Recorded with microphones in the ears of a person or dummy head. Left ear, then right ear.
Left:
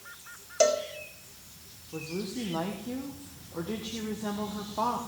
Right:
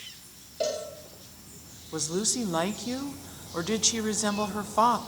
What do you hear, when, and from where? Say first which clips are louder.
0.6 s a cowbell: left 6 dB; 55° left (ahead or behind), 1.9 m
1.9 s a woman speaking: right 7 dB; 70° right (ahead or behind), 1.5 m